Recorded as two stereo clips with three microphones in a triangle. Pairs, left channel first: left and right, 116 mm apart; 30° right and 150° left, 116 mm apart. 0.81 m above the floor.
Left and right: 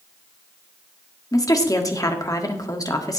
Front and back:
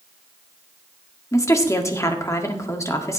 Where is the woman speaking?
30° left, 1.6 m.